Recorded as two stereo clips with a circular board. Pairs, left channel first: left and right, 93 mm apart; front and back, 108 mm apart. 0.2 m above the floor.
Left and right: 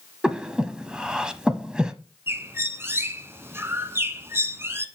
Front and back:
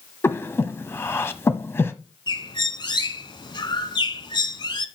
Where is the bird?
35° right, 1.1 m.